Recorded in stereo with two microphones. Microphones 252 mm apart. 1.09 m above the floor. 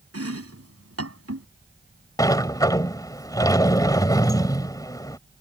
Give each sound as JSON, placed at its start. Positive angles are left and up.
{"t": 0.1, "sound": "chopping", "side_deg": -70}
{"t": 2.2, "sound": "a sliding door", "side_deg": 15}